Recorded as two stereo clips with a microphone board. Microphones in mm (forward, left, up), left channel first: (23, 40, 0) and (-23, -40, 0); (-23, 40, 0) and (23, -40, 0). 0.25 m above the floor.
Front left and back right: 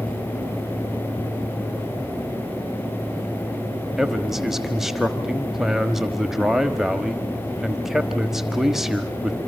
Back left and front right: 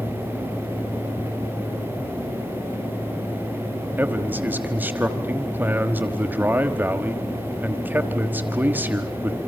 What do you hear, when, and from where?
4.0 s a man speaking: 45° right, 1.3 m